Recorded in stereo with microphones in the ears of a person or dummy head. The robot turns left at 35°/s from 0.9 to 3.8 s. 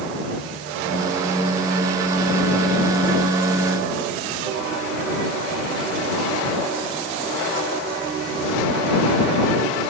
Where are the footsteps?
No footsteps in this recording.